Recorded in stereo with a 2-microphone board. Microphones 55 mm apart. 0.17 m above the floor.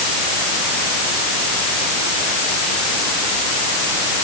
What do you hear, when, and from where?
Only background noise.